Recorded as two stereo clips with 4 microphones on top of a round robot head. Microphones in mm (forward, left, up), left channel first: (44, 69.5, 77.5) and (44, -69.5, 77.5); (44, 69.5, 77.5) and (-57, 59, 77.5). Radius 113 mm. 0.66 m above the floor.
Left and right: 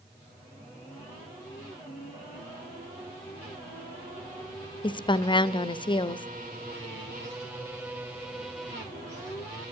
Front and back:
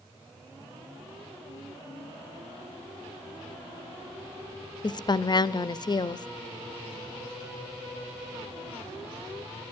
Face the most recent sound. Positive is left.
turn(degrees=40)